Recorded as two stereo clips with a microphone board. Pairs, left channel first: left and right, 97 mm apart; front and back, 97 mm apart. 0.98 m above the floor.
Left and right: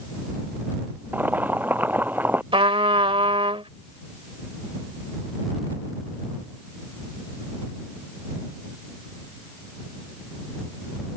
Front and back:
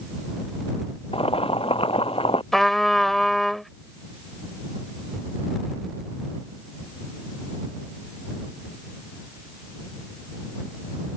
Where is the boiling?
20° right.